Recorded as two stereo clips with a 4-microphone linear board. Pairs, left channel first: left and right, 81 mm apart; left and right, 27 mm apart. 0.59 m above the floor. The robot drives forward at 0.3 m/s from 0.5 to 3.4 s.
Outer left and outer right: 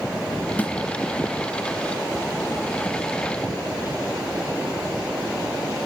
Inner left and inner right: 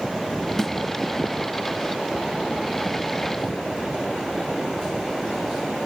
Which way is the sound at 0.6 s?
20° left (ahead or behind).